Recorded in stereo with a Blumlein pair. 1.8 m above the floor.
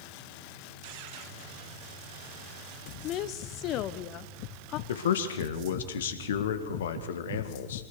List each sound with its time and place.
3.0 s a woman speaking: 35° left, 1.1 m
4.9 s a man speaking: 60° left, 2 m